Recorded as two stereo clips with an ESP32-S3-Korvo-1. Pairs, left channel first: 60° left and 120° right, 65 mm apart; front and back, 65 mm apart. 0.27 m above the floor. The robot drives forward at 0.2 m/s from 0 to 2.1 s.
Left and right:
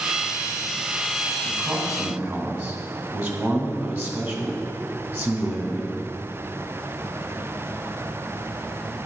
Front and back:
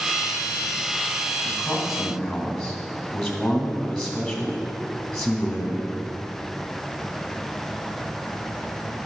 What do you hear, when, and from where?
1.4 s a man speaking: 85° right, 2 m